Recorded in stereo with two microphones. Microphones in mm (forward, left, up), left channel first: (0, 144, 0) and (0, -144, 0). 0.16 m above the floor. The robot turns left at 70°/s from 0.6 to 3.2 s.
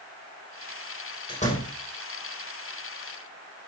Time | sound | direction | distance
1.3 | a door slam | 15° left (ahead or behind) | 4 m